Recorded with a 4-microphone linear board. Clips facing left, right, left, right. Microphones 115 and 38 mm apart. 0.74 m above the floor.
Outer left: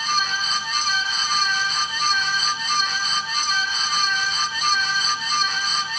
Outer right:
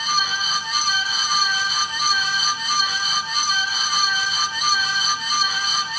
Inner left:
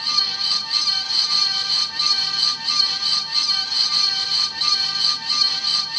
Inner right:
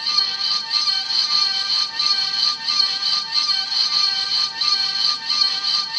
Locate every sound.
Only background noise.